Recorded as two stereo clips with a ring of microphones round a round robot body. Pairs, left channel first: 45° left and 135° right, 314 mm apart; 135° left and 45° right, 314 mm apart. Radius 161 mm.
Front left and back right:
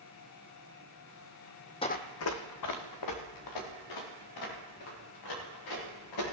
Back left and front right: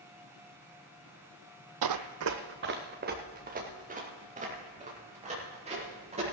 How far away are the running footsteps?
About 0.8 m.